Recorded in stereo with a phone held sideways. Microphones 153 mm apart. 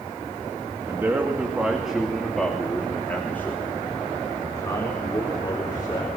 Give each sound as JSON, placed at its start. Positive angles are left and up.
{"t": 0.9, "sound": "a man speaking", "side_deg": -20, "distance_m": 2.5}